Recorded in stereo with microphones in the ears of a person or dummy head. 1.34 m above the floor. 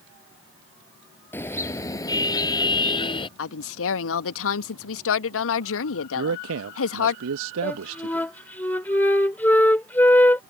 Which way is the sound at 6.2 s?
80° right.